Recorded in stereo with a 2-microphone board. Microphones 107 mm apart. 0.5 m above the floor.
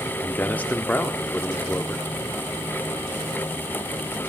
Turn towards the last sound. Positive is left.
turn(degrees=15)  # may be behind; listen again after turning